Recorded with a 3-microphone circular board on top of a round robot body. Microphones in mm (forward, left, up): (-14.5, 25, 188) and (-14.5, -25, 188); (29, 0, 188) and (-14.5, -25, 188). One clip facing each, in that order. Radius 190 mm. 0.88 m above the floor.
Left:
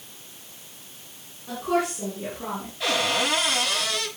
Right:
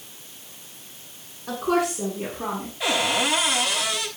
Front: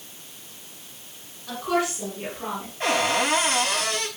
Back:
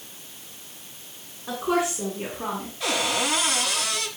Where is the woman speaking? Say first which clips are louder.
Right 2 dB, back 1 dB; 85° right, 10 m; by 2.7 s 80° right, 9.5 m.